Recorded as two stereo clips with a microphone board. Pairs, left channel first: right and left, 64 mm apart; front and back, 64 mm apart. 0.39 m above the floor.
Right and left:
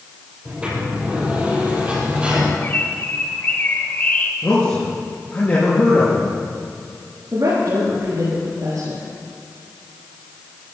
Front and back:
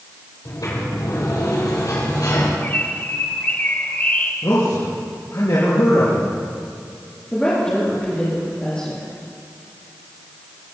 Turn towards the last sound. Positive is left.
turn(degrees=65)